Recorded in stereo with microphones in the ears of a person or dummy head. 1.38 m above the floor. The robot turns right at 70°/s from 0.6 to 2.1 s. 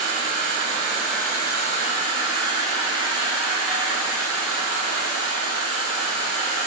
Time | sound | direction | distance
0.0 | an insect | 25° right | 6 m